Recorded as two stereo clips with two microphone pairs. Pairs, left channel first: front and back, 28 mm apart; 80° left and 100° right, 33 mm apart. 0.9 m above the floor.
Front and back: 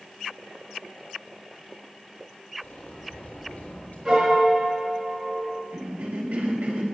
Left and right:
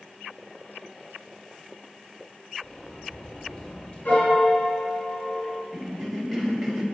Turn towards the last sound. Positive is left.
turn(degrees=170)